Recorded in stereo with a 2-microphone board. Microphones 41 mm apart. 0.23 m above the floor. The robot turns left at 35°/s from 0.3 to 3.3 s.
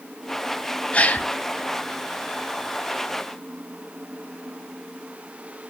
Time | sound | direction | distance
0.9 | a gasp | 35° left (ahead or behind) | 0.6 m